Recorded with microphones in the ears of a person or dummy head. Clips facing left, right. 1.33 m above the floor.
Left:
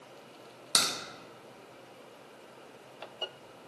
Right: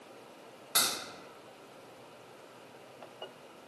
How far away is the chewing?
No chewing in this recording.